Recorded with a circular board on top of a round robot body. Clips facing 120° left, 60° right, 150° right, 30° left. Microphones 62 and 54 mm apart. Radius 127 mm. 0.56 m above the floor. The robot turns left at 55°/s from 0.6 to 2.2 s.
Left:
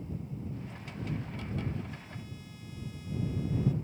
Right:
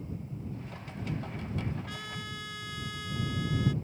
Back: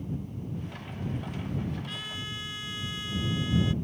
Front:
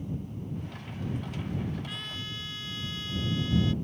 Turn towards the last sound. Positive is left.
turn(degrees=-75)